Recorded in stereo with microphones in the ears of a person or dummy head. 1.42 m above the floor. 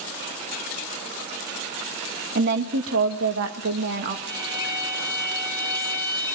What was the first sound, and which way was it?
A woman speaking, 60° right (ahead or behind).